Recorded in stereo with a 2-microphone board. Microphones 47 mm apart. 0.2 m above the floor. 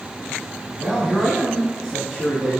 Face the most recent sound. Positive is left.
turn(degrees=20)  # may be behind; listen again after turning